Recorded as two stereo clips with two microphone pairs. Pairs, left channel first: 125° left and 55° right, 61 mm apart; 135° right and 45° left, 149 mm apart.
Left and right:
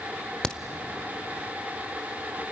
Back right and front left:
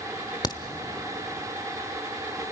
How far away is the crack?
About 1.1 m.